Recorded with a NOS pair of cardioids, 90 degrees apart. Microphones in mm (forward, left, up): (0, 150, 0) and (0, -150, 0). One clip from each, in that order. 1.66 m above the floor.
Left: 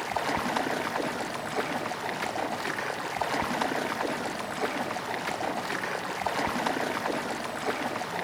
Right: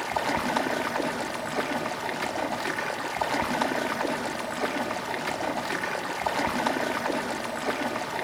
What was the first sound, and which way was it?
Running water, 5° right.